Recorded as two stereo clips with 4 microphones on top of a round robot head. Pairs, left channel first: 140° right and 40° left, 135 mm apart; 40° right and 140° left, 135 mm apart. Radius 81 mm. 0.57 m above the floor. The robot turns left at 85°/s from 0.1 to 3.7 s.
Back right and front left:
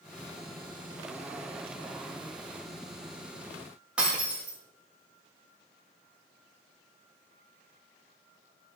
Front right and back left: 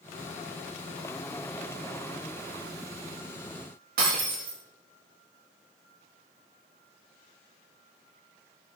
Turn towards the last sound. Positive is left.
turn(degrees=120)